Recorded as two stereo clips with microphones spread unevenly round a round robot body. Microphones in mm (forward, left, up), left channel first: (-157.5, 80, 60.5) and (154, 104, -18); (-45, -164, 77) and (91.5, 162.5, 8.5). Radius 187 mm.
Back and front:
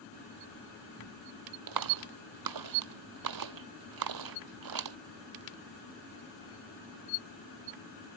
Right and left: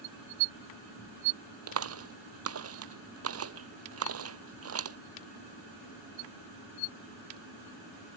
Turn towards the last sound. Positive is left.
turn(degrees=15)